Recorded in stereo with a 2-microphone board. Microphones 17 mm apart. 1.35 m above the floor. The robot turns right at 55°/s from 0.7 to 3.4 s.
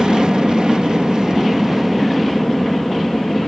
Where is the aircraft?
80° right; by 3.5 s 70° left.